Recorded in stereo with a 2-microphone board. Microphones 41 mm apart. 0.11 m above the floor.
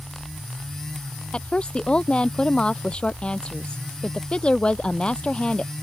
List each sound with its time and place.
1.3 s a woman speaking: 25° left (ahead or behind)